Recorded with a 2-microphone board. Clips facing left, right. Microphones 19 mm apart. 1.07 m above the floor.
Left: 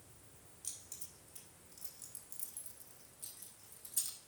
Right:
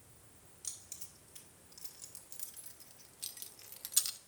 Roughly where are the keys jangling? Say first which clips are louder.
Right 2 dB; right.